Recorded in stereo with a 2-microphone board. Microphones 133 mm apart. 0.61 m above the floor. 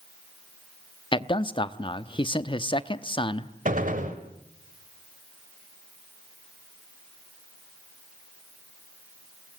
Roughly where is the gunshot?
Right.